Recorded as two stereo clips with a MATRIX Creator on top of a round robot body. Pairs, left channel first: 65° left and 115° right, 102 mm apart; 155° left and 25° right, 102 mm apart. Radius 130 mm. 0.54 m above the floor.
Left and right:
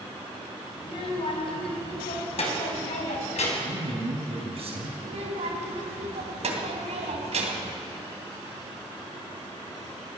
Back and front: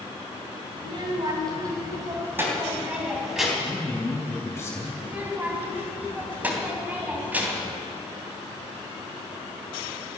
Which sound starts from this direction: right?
A child speaking, at 5.0 s.